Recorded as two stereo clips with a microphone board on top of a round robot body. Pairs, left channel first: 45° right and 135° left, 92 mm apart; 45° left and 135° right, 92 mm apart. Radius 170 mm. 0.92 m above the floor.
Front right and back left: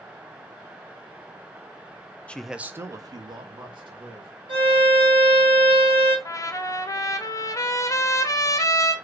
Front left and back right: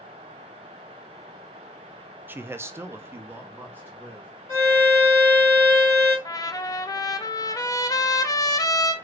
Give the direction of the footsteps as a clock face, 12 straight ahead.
I don't hear footsteps.